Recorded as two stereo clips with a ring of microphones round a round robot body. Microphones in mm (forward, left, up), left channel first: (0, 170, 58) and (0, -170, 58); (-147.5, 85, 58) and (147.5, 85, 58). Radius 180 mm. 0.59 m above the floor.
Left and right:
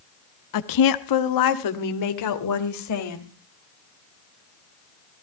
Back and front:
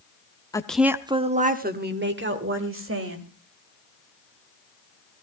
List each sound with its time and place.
0.5 s a woman speaking: 100° left, 1.0 m; by 3.3 s 45° left, 3 m